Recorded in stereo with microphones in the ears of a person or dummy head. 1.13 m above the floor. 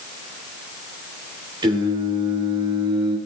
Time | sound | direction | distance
1.6 | singing | 25° right (ahead or behind) | 3 m